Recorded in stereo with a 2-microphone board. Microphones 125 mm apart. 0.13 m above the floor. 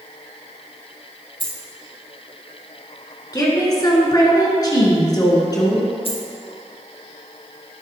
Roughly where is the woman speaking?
Left.